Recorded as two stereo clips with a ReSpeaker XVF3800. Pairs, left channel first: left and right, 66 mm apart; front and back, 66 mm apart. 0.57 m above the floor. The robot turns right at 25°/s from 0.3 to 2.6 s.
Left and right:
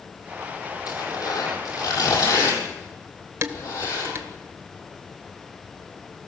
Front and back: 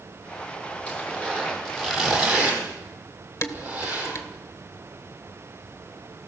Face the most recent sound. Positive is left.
turn(degrees=-40)